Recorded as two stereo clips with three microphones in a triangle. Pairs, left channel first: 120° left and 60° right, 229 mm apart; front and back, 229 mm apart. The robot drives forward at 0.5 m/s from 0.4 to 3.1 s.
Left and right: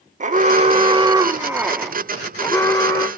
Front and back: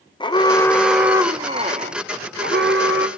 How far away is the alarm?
About 0.7 m.